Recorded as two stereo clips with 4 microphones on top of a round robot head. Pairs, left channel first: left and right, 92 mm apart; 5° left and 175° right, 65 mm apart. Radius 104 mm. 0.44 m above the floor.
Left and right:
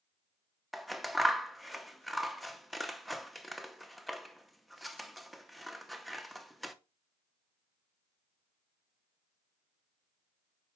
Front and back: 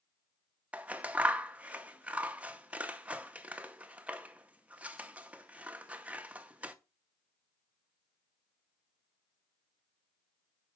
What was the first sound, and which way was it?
Scissors, straight behind.